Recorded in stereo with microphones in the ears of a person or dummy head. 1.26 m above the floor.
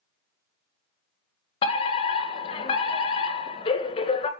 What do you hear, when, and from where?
1.6 s a fire alarm: 30° left (ahead or behind), 2.0 m